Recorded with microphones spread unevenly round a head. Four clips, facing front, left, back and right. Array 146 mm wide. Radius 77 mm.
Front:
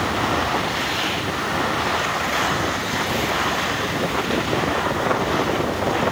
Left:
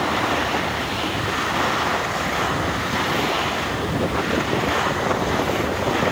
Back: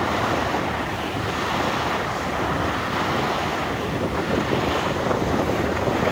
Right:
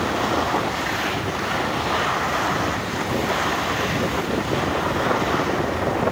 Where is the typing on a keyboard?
I don't hear typing on a keyboard.